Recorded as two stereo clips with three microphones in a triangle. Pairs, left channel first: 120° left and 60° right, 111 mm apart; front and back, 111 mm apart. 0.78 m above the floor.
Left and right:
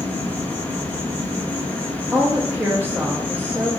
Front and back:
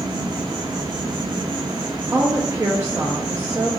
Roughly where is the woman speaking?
Behind right.